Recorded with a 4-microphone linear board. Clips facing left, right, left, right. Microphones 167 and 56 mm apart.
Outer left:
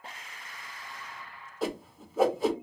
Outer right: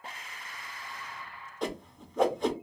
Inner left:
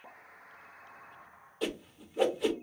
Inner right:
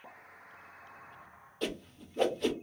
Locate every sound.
1.6 s a whoosh: 5° left (ahead or behind), 0.6 m